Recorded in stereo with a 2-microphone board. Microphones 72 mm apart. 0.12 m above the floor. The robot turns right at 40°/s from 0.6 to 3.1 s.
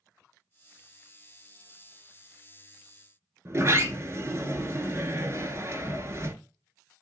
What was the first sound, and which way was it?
A sliding door, 40° right (ahead or behind).